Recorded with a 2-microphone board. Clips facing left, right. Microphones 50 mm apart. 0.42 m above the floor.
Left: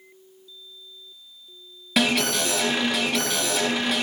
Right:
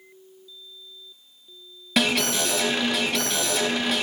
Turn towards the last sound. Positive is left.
turn(degrees=0)  # may be behind; listen again after turning